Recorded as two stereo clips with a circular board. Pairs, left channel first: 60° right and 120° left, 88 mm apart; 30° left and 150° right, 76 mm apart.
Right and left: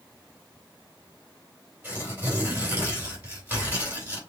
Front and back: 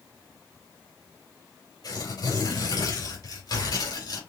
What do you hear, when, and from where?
1.8 s tearing paper: 50° left, 4 m